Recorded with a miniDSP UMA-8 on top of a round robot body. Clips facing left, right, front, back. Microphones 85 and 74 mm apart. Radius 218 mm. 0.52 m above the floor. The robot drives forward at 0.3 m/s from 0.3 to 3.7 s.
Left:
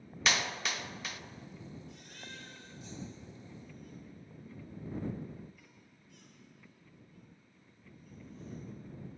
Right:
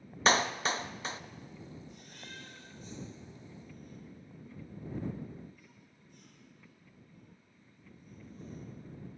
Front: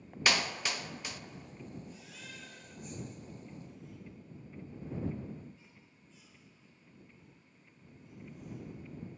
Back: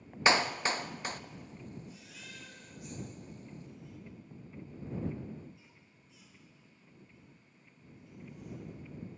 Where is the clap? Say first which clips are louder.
Right 6 dB, back 5 dB; 130° right, 1.1 m; by 1.2 s 145° right, 1.2 m.